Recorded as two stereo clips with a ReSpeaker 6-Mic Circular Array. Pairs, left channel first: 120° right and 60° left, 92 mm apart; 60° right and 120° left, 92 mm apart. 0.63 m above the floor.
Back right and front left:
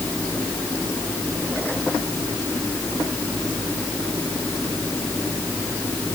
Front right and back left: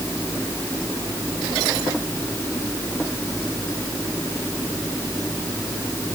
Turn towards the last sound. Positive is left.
No sound to turn to.